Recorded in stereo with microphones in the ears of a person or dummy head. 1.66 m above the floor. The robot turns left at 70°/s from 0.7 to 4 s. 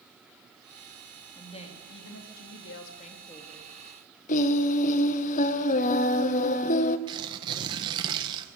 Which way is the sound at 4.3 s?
50° left (ahead or behind).